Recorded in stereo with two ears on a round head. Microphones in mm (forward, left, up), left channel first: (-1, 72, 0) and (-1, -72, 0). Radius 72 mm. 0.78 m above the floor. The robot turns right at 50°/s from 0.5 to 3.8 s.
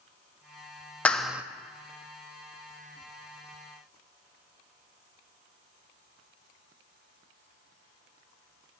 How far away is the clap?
About 0.5 m.